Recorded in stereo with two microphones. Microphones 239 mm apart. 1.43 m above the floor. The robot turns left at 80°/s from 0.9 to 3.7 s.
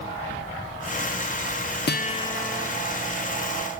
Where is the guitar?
45° left, 0.6 m; by 2.7 s 20° right, 0.6 m.